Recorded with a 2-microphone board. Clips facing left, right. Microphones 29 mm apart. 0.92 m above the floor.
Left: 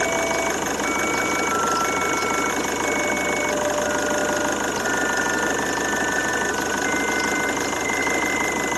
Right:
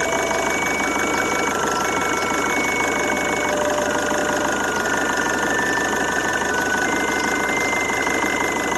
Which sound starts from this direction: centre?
An engine running, at 0.0 s.